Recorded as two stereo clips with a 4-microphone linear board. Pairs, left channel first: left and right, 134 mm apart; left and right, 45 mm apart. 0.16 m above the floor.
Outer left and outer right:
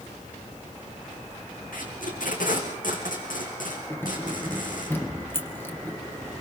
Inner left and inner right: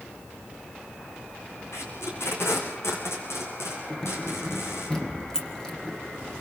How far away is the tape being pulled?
About 5 m.